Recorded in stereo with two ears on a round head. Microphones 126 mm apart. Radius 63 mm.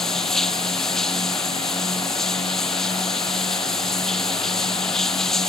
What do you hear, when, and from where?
0.0 s running water: centre (ahead or behind)